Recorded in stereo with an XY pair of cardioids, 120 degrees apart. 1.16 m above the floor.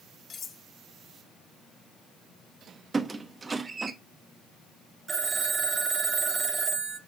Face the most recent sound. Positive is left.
turn(degrees=-30)